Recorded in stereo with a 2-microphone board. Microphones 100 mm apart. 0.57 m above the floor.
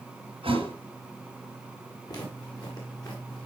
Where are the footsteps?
40° left (ahead or behind), 5 m.